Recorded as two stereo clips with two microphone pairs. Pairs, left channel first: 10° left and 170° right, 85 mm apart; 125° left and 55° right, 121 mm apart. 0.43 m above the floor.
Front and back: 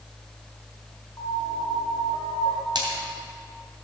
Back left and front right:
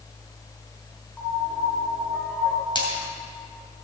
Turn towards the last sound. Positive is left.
turn(degrees=170)